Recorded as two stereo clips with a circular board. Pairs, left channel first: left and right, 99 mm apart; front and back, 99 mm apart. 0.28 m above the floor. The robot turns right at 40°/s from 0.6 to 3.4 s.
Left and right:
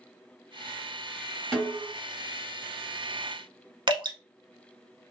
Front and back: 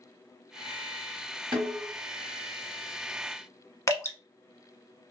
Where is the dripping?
60° right, 0.8 m.